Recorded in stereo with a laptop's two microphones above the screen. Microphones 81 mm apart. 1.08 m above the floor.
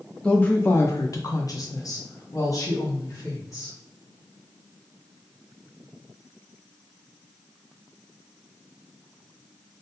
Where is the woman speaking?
10° left (ahead or behind), 0.6 m; by 3.8 s 40° left (ahead or behind), 1.6 m.